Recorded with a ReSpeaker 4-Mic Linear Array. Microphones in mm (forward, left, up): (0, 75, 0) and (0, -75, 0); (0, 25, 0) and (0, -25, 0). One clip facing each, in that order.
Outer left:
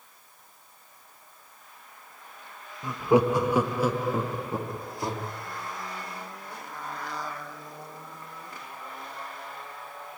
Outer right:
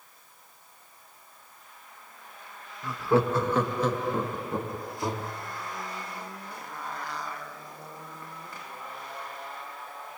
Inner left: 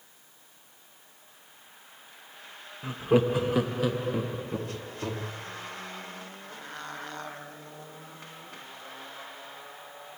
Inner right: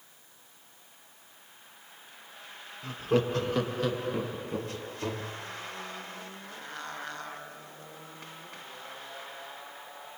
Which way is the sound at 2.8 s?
20° left (ahead or behind).